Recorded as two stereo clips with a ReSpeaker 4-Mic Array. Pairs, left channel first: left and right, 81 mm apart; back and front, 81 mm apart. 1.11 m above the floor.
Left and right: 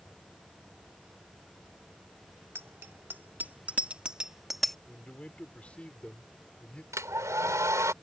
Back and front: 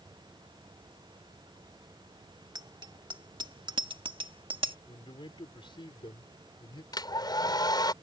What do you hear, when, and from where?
2.5 s a bicycle bell: 30° right; by 4.8 s 5° left
4.9 s a man speaking: 165° left
6.9 s a hair dryer: 145° right